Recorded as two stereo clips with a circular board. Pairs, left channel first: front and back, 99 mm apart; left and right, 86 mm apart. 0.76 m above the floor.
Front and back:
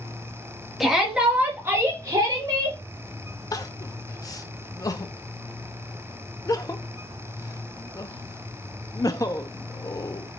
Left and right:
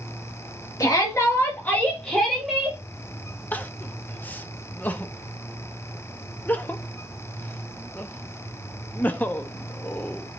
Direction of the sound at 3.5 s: 25° left.